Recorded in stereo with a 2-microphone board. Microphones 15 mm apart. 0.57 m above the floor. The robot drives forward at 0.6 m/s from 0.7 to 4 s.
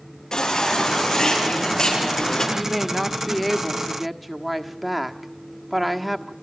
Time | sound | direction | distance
0.3 | a baby crying | 40° left (ahead or behind) | 9.5 m
2.5 | a woman speaking | 5° right (ahead or behind) | 2 m